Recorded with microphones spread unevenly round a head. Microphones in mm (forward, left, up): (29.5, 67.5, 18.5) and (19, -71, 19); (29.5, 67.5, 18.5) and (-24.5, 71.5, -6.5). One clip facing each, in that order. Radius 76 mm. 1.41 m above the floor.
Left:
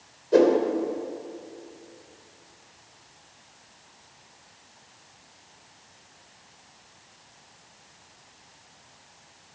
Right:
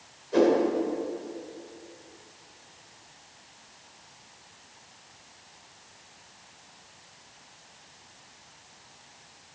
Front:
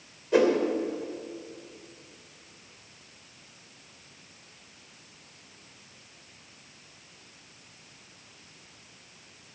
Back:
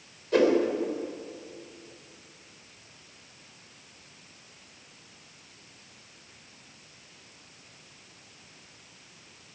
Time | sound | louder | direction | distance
0.3 | a whoosh | left 3 dB, even | 65° left | 2.5 m